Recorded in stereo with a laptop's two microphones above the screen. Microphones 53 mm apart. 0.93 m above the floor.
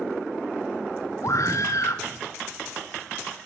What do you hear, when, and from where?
1.2 s a scream: 65° left (ahead or behind), 1.7 m